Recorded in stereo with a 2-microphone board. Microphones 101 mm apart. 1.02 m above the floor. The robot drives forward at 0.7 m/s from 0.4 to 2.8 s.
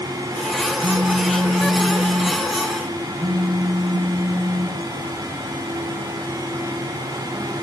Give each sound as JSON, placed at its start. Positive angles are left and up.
{"t": 0.8, "sound": "a phone buzzing", "side_deg": -65, "distance_m": 1.7}